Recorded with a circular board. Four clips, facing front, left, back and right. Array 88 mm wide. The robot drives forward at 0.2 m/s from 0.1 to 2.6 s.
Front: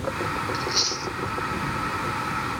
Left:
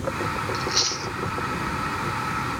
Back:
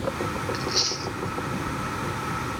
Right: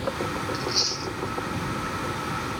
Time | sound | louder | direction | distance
0.5 | chewing | left 2 dB, front 1 dB | 85° left | 0.6 m